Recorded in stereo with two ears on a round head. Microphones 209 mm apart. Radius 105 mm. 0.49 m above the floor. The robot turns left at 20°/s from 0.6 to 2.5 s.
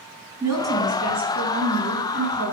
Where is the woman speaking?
15° right, 4 m; by 2.5 s 50° right, 4 m.